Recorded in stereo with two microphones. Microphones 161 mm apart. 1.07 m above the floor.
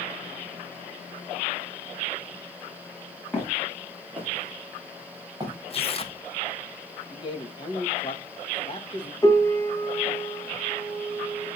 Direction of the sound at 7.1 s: 30° left (ahead or behind).